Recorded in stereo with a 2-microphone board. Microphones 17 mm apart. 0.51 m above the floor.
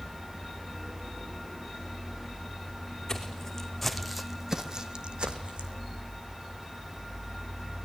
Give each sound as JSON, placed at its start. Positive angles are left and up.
{"t": 3.1, "sound": "footsteps", "side_deg": 25, "distance_m": 2.5}